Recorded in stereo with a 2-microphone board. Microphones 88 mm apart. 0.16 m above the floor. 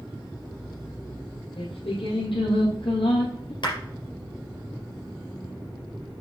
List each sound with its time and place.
1.6 s singing: 85° left, 2.5 m
3.6 s a clap: 65° left (ahead or behind), 3.5 m